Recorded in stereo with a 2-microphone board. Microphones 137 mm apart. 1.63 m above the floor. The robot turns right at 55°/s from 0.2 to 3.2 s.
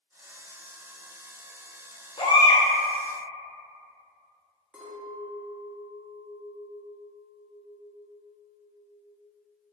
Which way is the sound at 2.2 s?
35° left (ahead or behind).